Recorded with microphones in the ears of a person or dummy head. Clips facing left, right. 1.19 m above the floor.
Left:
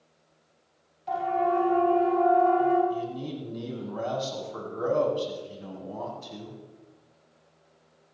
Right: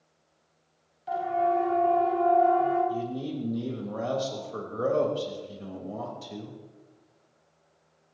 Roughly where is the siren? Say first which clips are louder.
Even; centre.